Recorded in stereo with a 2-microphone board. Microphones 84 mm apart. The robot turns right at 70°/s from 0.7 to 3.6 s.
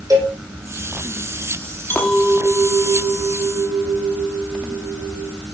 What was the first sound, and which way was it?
A cowbell, 45° right (ahead or behind).